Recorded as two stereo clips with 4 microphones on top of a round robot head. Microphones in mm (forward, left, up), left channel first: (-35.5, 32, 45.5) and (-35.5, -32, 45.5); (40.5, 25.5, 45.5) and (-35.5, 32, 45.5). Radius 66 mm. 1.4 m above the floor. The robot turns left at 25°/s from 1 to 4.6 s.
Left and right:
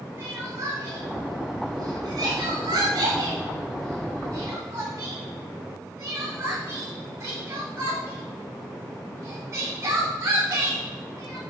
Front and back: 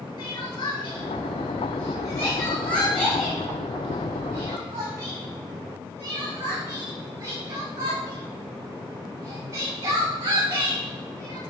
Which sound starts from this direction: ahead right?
Crying, at 0.2 s.